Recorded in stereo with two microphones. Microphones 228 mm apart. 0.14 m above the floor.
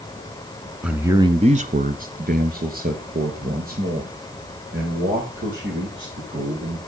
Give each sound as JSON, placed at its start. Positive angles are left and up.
{"t": 0.8, "sound": "a man speaking", "side_deg": -5, "distance_m": 1.2}